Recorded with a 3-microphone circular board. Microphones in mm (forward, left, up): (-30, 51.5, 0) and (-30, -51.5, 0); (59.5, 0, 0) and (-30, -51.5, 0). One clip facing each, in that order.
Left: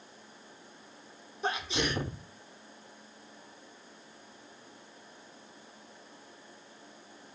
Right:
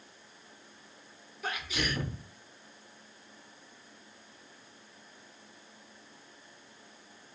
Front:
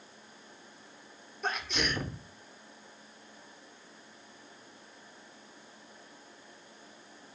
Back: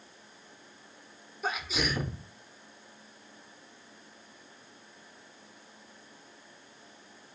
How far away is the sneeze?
About 0.9 m.